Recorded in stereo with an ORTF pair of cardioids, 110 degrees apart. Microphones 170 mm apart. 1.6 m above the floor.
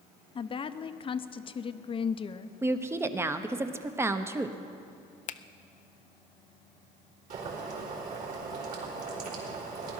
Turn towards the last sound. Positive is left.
turn(degrees=-55)